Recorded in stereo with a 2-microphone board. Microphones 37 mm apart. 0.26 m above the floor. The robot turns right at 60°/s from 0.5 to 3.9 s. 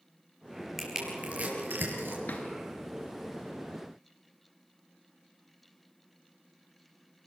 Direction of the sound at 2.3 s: 50° left (ahead or behind).